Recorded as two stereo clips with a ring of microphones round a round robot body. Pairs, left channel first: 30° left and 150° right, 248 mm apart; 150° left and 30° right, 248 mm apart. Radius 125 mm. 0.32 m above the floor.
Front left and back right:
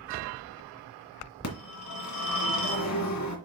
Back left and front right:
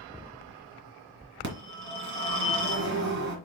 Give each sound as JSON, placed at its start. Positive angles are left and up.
{"t": 1.4, "sound": "a phone ringing", "azimuth_deg": 10, "distance_m": 2.5}